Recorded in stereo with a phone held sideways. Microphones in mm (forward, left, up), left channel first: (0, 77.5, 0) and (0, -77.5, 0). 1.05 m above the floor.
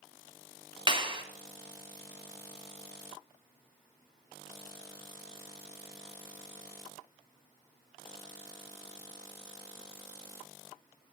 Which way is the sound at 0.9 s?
30° right (ahead or behind).